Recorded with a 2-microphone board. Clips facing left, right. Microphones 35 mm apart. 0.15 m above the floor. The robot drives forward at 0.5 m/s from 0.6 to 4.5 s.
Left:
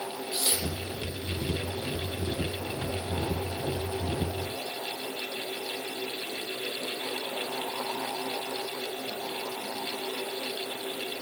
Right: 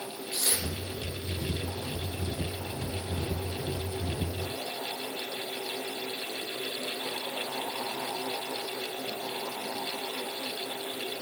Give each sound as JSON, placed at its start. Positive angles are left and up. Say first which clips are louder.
{"t": 0.3, "sound": "tearing paper", "louder": "left 1 dB", "side_deg": 30, "distance_m": 1.4}